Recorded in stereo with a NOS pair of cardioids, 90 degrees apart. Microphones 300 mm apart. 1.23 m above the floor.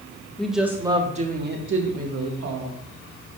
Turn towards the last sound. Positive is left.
turn(degrees=-70)